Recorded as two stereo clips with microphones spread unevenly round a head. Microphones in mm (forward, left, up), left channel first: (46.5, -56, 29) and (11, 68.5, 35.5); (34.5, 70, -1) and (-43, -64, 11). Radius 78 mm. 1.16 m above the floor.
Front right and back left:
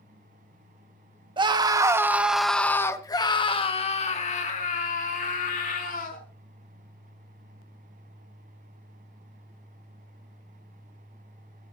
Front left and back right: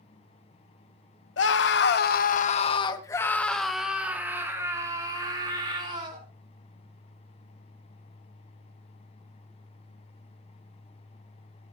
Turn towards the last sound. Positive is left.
turn(degrees=-60)